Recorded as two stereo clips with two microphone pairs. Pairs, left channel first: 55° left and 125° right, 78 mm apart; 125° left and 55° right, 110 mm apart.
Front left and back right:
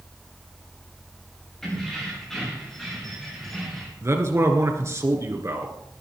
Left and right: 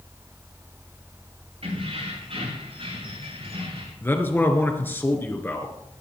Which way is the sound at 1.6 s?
30° right.